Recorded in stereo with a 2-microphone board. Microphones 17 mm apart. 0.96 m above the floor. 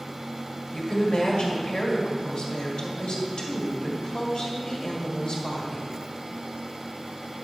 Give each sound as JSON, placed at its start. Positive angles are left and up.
{"t": 0.7, "sound": "a woman speaking", "side_deg": 55, "distance_m": 1.8}